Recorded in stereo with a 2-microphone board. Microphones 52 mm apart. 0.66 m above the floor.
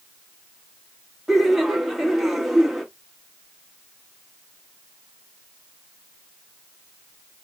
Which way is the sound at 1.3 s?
5° right (ahead or behind).